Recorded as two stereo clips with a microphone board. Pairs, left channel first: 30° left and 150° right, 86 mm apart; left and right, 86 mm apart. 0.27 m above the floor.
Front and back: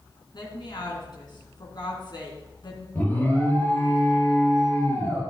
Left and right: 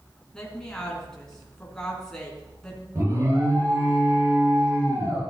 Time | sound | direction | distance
0.3 | a woman speaking | 10° left | 3.5 m
3.0 | an alarm | 35° right | 6.5 m